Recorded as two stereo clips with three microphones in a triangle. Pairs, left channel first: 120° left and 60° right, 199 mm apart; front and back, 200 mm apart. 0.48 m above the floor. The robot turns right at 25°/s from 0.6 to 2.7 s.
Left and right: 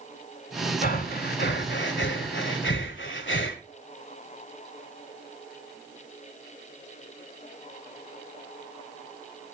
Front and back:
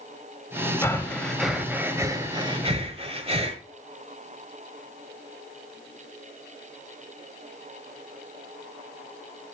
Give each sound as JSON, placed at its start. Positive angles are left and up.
{"t": 0.8, "sound": "breathing", "azimuth_deg": 75, "distance_m": 1.5}